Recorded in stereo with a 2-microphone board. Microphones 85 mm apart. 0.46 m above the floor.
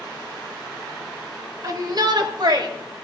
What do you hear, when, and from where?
1.6 s a shout: 45° right (ahead or behind), 2 m; by 2.7 s 60° right (ahead or behind), 3 m